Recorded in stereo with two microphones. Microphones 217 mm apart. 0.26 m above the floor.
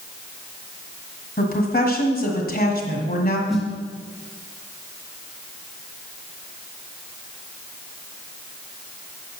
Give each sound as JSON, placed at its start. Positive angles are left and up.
{"t": 1.4, "sound": "a woman speaking", "side_deg": 40, "distance_m": 1.6}
{"t": 3.5, "sound": "a snare drum", "side_deg": 0, "distance_m": 2.5}